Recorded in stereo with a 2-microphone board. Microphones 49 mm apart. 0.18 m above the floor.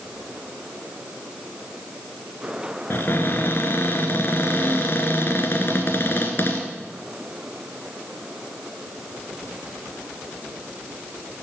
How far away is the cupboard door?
About 2.5 m.